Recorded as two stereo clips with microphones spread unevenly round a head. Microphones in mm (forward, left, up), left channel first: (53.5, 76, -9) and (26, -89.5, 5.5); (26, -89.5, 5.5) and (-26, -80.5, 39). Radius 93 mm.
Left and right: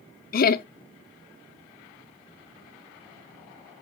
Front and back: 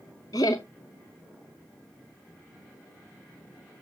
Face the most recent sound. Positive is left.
turn(degrees=70)